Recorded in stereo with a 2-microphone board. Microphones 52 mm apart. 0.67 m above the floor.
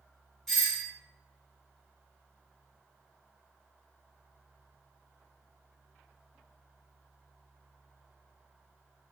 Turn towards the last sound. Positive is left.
turn(degrees=5)  # may be behind; listen again after turning